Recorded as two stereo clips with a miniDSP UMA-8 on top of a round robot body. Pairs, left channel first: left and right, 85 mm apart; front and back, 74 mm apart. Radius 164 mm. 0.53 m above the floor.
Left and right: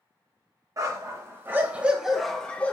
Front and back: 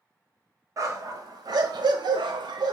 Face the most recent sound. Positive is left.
turn(degrees=160)